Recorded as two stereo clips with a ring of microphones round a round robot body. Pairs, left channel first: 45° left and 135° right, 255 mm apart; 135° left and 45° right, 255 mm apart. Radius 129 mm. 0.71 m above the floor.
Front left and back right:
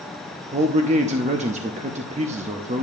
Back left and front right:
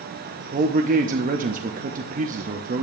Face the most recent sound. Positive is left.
turn(degrees=-85)